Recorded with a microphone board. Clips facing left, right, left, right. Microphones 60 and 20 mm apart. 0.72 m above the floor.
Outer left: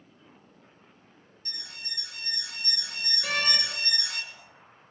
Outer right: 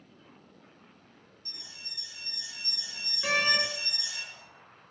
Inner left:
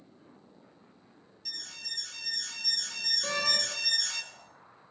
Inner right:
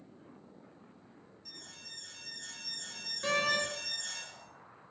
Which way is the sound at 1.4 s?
70° left (ahead or behind).